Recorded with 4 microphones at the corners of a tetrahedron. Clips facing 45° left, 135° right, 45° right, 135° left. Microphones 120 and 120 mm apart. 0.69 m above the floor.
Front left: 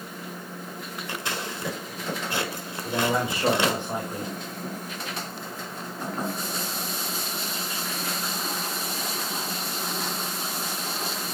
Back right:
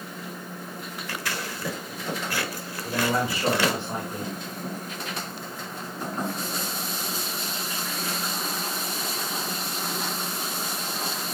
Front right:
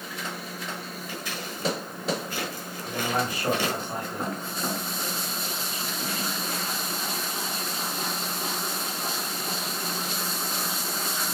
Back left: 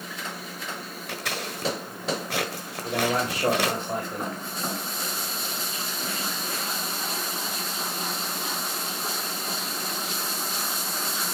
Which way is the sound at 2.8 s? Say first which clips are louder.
Even, back left 3 dB; 120° left.